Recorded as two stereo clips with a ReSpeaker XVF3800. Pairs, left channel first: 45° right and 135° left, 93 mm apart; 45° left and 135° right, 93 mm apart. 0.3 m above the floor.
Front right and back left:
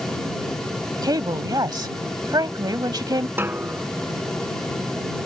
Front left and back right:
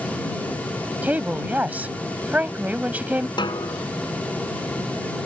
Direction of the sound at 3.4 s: 70° left.